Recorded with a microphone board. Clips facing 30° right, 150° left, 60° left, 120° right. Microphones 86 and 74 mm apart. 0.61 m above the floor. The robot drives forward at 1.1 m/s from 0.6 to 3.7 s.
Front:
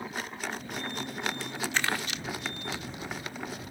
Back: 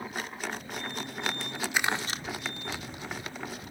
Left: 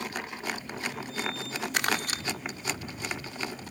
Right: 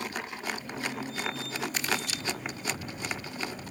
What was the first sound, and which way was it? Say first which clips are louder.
Crumpling: back 2 dB, left 6 dB; 70° left.